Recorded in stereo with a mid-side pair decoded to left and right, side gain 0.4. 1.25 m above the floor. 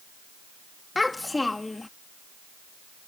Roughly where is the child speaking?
Ahead.